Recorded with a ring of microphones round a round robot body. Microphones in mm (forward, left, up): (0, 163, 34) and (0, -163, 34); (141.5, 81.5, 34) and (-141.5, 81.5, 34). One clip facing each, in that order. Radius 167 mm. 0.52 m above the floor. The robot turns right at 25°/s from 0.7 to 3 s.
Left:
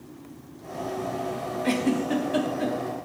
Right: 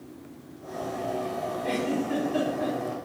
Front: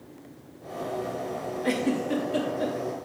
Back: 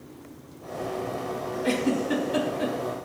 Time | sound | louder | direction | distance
1.6 | a giggle | left 4 dB, back 1 dB | 100° left | 3.5 m